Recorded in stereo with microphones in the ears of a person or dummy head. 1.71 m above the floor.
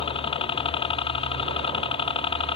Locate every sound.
0.0 s a helicopter: 25° left (ahead or behind)